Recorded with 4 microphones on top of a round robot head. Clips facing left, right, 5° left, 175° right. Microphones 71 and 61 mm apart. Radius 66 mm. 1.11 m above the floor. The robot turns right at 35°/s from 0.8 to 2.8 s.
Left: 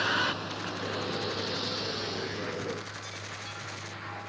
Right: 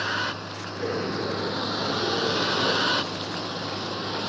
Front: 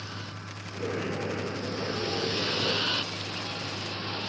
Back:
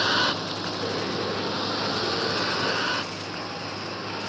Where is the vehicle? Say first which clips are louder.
Right 1 dB, back 16 dB; 175° right; by 4.3 s 100° right.